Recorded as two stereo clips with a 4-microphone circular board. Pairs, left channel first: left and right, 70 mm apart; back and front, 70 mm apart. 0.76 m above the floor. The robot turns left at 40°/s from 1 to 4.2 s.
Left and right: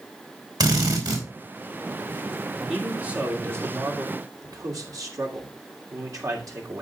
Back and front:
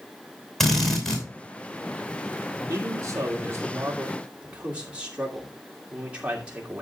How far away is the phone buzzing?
I don't hear a phone buzzing.